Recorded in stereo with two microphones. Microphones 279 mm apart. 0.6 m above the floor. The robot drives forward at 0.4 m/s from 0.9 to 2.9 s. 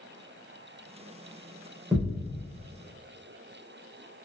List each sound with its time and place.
1.9 s a thud: 5° right (ahead or behind), 1.0 m